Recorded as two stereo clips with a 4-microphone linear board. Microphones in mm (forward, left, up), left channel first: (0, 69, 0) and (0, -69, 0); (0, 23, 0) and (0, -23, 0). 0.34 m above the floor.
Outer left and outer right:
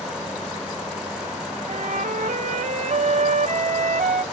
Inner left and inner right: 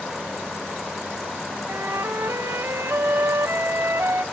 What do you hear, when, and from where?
1.7 s a flute: 70° right (ahead or behind), 0.7 m